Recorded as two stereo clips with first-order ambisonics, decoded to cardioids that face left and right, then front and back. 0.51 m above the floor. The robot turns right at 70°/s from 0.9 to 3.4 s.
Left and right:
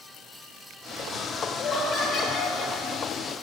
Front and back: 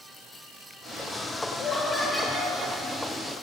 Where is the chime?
No chime in this recording.